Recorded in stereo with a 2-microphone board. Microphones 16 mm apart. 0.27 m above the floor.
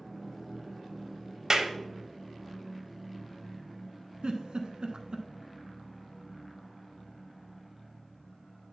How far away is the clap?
About 0.9 m.